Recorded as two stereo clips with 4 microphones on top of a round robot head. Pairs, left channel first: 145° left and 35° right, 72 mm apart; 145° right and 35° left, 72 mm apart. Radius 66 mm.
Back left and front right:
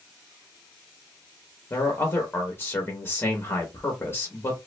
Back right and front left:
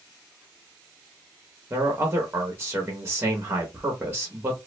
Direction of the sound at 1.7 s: 95° left.